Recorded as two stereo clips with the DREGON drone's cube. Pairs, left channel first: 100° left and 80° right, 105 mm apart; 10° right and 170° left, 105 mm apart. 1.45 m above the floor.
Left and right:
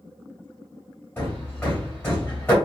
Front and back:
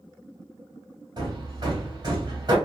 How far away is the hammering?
About 1.5 m.